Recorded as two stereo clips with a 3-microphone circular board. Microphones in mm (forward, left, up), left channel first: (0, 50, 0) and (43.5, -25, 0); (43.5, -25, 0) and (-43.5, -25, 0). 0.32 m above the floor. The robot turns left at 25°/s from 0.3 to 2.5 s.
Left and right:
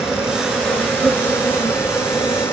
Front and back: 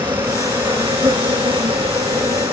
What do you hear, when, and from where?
0.0 s an insect: 145° right, 3.5 m; by 2.5 s 160° left, 3.5 m